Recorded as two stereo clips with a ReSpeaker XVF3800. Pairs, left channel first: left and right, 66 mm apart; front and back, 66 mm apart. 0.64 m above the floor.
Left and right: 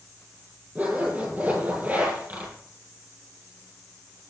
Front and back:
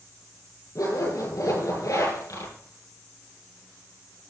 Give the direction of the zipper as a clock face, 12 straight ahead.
1 o'clock.